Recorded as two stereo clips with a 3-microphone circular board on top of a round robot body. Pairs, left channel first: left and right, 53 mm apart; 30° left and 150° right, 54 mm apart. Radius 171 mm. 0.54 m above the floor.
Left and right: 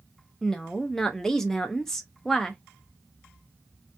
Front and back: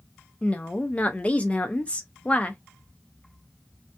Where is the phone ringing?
I don't hear a phone ringing.